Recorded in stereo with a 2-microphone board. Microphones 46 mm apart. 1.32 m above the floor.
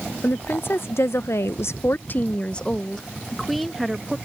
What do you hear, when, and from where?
0.2 s a woman speaking: 50° left (ahead or behind); by 4.2 s 5° right (ahead or behind)